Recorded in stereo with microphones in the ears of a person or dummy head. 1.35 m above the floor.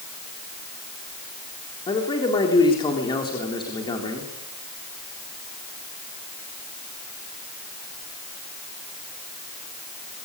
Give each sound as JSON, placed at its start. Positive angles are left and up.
{"t": 1.9, "sound": "a man speaking", "side_deg": 25, "distance_m": 3.5}